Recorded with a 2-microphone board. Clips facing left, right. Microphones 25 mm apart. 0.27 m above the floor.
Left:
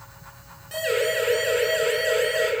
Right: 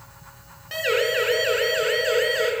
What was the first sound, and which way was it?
A siren, 30° right (ahead or behind).